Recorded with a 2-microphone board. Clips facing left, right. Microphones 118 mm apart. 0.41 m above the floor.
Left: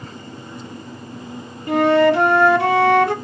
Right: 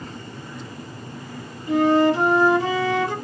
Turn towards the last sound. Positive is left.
turn(degrees=70)  # may be behind; listen again after turning